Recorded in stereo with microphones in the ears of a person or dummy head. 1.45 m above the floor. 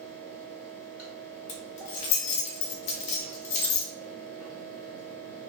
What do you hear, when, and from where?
0.0 s a fan: 10° right (ahead or behind), 1.6 m
1.5 s keys jangling: 40° left (ahead or behind), 0.7 m